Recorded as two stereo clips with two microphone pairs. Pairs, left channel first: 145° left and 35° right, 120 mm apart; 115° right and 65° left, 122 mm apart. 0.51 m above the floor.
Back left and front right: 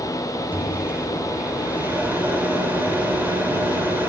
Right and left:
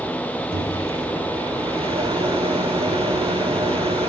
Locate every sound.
0.5 s a microwave: 35° left, 1.2 m